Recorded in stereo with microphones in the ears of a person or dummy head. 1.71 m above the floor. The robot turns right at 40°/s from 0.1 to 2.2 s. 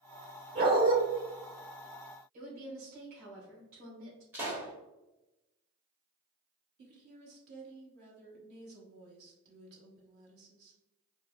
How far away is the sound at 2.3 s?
About 1.8 m.